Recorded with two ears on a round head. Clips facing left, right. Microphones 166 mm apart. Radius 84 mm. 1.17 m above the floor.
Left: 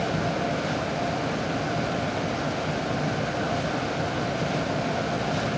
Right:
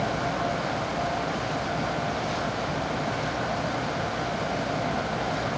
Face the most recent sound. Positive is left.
No sound to turn to.